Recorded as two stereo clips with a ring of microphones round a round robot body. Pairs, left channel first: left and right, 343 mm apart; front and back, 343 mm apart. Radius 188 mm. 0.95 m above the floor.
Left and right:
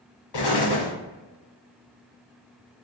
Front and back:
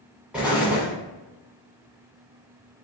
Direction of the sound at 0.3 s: 95° left.